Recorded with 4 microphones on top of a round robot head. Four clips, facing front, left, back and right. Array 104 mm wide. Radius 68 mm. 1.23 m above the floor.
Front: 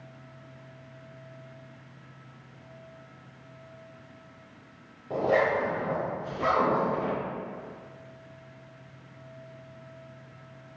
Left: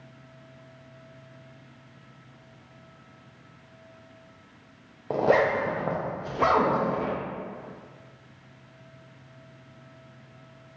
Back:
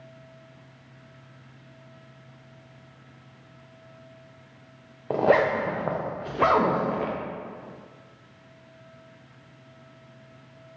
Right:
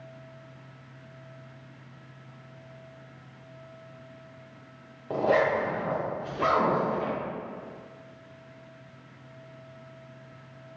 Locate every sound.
5.1 s a zipper: 155° left, 0.5 m